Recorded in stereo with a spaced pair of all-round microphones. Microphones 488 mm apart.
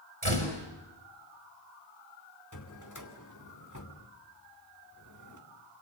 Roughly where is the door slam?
Right.